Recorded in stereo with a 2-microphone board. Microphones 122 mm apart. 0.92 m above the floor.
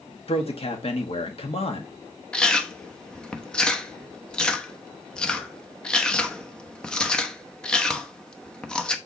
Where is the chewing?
5° left (ahead or behind), 0.9 m.